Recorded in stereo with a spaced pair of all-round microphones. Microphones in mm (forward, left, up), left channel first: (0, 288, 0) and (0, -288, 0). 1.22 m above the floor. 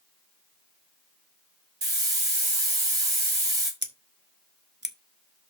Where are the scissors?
20° right (ahead or behind), 1.3 m.